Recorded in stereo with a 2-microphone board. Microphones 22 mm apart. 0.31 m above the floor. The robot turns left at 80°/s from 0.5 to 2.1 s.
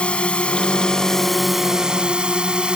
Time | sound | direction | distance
0.0 | a drone | 75° left | ?